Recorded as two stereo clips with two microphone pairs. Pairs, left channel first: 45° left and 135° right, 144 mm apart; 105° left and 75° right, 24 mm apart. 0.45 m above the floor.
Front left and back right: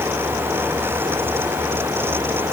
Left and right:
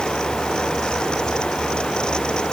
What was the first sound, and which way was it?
Only background noise.